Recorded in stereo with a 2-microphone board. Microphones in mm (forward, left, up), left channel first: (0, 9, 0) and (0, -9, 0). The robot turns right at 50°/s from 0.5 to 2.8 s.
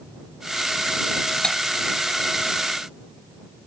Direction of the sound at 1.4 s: 40° left (ahead or behind).